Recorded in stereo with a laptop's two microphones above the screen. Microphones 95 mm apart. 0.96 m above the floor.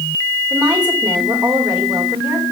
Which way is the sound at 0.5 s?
15° right (ahead or behind).